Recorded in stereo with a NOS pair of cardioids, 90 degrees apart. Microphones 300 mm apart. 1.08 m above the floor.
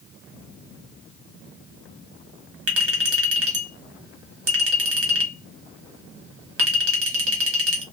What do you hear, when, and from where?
2.7 s a clink: 50° right, 1.3 m